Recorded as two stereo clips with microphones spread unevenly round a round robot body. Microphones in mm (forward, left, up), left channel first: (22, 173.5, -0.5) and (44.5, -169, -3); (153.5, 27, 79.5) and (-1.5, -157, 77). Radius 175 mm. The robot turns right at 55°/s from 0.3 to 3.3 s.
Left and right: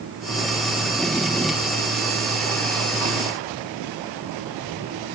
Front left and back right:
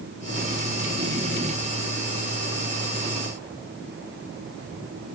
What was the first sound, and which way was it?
Only background noise.